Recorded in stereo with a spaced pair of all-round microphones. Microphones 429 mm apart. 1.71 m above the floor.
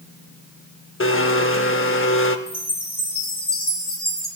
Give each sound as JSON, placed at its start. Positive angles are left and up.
{"t": 1.0, "sound": "a blender", "side_deg": 30, "distance_m": 0.6}
{"t": 2.5, "sound": "a chime", "side_deg": 60, "distance_m": 2.0}